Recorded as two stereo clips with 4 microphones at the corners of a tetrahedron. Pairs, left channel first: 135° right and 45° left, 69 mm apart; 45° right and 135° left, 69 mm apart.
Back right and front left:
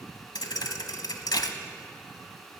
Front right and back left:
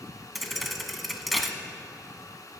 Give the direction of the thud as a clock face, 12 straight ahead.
5 o'clock.